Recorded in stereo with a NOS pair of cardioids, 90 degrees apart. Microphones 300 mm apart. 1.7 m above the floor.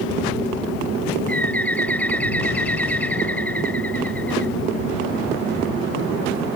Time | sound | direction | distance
1.3 | a bird | 5° left | ?